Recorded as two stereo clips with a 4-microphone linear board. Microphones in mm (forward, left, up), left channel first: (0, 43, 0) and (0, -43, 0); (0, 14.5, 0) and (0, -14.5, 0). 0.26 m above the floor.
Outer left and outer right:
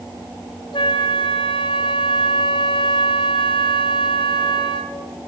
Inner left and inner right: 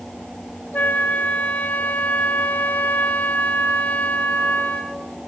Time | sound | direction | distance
0.7 | a flute | 75° left (ahead or behind) | 3 m